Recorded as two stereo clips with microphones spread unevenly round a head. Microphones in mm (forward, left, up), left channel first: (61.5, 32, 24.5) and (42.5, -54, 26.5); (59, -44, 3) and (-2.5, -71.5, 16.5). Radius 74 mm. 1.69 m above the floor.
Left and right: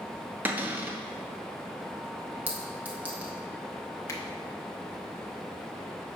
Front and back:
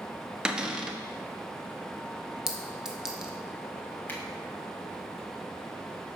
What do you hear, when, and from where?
0.5 s a cupboard door: 145° right, 0.6 m
2.5 s a clink: 140° right, 0.7 m
4.1 s a finger snap: 85° left, 0.7 m